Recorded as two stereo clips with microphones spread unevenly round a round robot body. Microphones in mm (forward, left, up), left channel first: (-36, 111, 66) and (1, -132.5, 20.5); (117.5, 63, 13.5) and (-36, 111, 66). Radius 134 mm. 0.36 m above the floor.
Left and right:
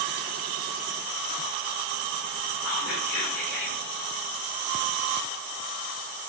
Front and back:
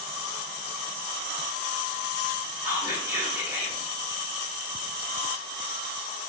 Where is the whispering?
75° left, 1.6 m.